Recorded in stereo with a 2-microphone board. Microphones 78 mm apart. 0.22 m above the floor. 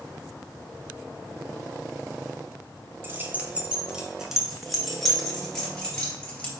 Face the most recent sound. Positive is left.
turn(degrees=10)  # may be behind; listen again after turning